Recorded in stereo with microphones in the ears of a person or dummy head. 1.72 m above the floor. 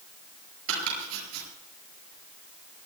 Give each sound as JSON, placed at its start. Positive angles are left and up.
{"t": 0.7, "sound": "chopping", "side_deg": -80, "distance_m": 10.0}